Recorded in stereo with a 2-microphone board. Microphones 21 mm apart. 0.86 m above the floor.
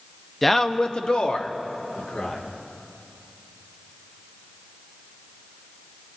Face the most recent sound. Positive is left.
turn(degrees=75)  # may be behind; listen again after turning